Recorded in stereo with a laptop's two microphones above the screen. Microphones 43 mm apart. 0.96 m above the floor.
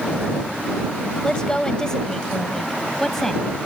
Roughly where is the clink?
I don't hear a clink.